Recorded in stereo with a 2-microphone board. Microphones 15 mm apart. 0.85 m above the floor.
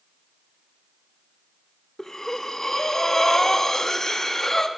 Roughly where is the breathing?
Left.